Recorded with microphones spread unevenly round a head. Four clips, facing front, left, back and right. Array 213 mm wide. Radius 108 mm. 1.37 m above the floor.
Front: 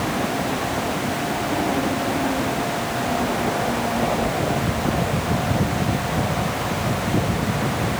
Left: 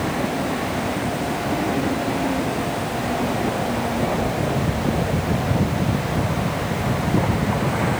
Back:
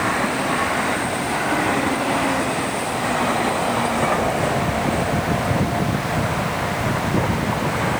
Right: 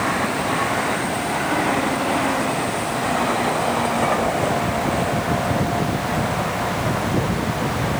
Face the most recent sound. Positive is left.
No sound to turn to.